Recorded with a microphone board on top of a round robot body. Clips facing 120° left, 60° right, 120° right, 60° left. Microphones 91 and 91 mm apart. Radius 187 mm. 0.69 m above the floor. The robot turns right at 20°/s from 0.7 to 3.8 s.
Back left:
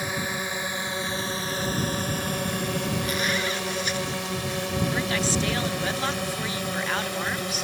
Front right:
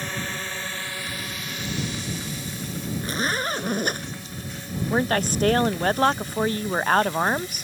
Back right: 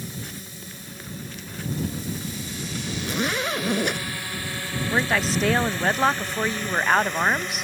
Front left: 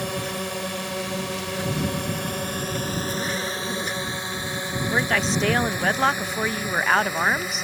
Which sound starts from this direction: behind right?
A zipper, at 3.0 s.